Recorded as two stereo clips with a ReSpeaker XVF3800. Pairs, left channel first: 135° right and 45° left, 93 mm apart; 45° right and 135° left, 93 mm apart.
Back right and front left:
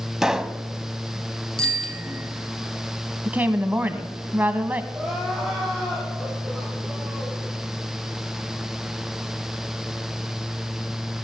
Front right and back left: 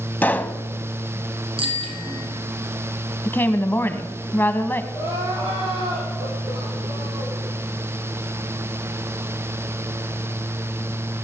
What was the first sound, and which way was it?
A pop, 25° right.